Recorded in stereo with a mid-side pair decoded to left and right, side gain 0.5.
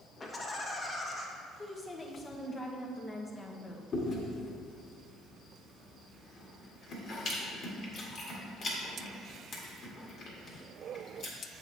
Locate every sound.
0.2 s laughter: 30° left, 1.6 m
1.6 s a woman speaking: 25° left, 1.2 m
3.9 s chewing: 55° left, 1.9 m